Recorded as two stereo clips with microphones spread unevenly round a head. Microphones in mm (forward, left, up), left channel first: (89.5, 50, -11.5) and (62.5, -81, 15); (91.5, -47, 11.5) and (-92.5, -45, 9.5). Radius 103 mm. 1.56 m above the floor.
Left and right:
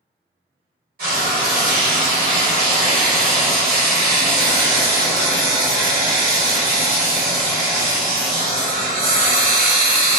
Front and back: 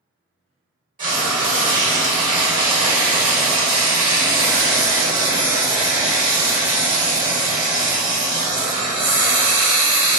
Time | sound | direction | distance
1.0 | frying | 135° right | 1.7 m